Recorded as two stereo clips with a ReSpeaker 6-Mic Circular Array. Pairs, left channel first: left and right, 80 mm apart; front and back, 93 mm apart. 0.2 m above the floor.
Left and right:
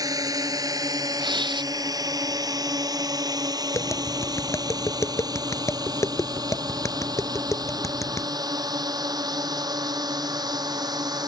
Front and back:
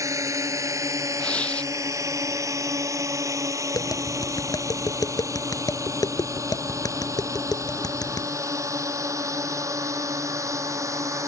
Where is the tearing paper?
75° right.